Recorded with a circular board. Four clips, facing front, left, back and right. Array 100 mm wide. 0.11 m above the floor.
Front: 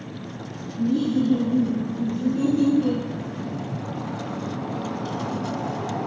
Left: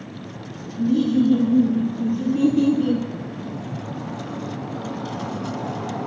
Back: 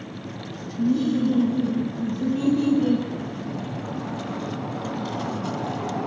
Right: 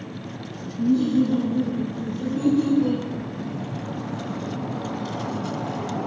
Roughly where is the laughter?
Left.